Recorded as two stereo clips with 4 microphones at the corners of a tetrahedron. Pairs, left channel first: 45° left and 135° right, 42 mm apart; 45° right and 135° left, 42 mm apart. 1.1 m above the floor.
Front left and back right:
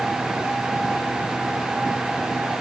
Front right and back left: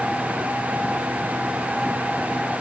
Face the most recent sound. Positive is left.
No sound to turn to.